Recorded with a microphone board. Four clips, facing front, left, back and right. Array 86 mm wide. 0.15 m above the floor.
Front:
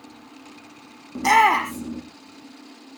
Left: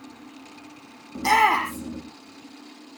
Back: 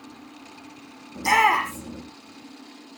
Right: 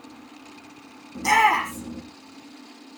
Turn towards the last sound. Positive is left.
turn(degrees=15)